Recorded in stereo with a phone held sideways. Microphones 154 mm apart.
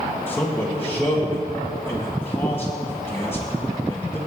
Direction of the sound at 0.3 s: 15° left (ahead or behind).